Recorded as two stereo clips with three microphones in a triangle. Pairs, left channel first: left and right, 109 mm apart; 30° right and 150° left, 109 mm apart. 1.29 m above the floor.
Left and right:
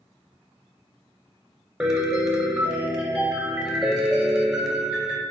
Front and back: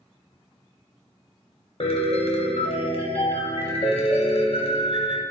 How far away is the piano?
About 0.8 m.